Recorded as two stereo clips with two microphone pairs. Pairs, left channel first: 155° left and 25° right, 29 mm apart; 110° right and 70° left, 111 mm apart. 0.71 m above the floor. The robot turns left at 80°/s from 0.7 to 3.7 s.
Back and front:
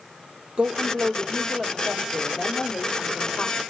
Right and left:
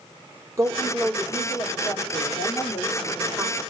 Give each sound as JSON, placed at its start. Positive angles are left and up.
{"t": 0.6, "sound": "a woman speaking", "azimuth_deg": 10, "distance_m": 1.6}